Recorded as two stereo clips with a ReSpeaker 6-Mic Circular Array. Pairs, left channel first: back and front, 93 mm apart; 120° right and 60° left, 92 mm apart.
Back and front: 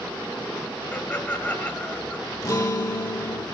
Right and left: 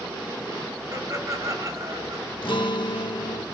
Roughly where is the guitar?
Behind right.